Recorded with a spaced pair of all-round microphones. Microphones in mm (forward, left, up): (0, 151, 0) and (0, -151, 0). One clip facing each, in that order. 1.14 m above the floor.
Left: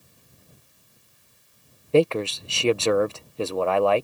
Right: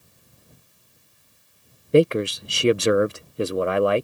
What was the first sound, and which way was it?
A man speaking, 20° right (ahead or behind).